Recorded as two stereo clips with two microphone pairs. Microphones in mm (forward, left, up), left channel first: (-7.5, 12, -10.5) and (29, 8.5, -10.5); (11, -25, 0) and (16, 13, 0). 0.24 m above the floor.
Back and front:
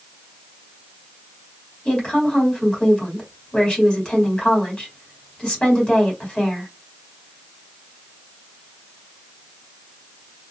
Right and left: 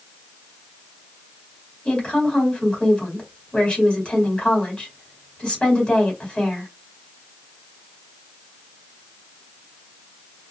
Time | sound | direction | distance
1.9 | a woman speaking | 150° right | 1.8 m